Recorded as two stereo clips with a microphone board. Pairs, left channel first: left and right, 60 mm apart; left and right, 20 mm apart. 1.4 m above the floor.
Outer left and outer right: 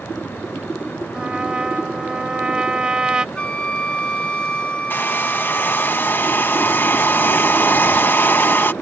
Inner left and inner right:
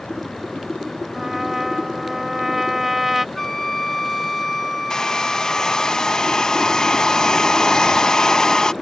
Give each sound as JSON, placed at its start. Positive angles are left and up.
{"t": 1.1, "sound": "a trumpet", "side_deg": -15}
{"t": 3.4, "sound": "a flute", "side_deg": 20}
{"t": 4.9, "sound": "a hair dryer", "side_deg": 35}